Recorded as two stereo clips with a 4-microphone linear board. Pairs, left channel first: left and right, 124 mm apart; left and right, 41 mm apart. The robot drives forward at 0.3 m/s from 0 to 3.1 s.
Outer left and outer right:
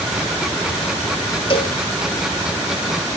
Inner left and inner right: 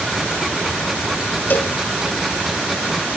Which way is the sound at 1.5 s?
45° left (ahead or behind).